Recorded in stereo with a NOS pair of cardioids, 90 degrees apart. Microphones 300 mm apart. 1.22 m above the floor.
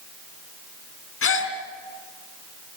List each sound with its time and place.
1.2 s a gasp: 50° left, 3 m